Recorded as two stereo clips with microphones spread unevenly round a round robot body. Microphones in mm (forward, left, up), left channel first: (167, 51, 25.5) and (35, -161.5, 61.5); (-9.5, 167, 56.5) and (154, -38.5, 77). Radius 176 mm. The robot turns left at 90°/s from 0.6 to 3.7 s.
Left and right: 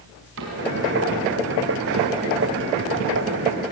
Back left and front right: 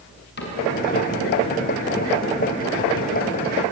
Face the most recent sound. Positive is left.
turn(degrees=-95)